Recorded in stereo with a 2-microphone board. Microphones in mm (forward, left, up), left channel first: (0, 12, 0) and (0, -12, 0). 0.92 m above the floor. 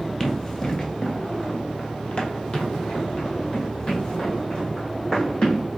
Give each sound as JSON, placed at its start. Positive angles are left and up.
{"t": 0.2, "sound": "running footsteps", "side_deg": 20, "distance_m": 1.1}